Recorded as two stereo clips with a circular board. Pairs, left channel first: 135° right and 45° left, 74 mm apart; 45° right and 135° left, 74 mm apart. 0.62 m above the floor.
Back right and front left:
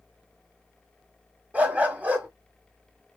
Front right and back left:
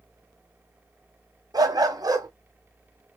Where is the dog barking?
115° left, 1.2 m.